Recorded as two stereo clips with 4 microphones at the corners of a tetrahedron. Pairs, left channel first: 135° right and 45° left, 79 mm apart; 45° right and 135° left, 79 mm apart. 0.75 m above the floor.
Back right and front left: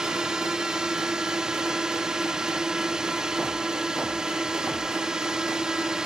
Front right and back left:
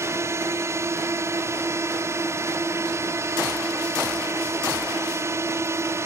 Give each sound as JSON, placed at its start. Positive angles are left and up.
{"t": 0.0, "sound": "a drone", "azimuth_deg": 120}